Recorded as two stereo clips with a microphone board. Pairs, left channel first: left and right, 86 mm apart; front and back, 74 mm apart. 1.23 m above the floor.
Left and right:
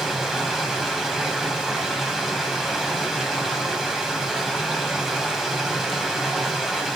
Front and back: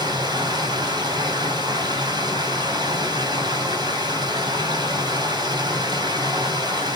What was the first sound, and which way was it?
Running water, 175° right.